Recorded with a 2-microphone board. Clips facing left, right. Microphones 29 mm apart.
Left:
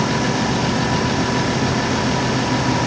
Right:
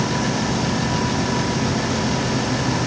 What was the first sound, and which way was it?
Only background noise.